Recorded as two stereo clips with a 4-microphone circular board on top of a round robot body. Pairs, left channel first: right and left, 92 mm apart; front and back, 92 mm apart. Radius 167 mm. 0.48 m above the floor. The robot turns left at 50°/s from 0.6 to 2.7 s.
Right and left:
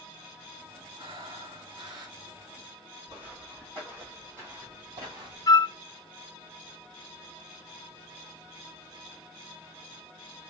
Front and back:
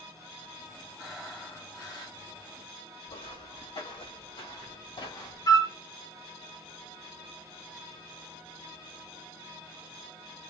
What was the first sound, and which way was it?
Breathing, 100° left.